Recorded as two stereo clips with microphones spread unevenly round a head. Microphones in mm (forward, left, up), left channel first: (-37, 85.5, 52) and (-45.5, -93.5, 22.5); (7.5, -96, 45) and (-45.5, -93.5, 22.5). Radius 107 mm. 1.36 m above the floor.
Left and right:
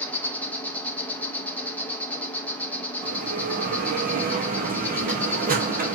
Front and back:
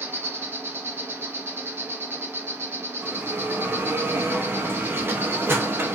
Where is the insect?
175° left, 1.4 m.